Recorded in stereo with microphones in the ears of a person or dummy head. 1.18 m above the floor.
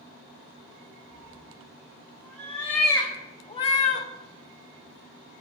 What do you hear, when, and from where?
1.1 s a cat meowing: centre (ahead or behind), 1.9 m; by 4.1 s 50° left (ahead or behind), 0.7 m